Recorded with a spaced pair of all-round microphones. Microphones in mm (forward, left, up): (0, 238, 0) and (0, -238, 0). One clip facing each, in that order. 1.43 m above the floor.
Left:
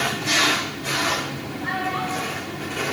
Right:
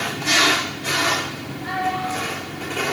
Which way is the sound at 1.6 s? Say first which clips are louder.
Right 3 dB; 70° left (ahead or behind).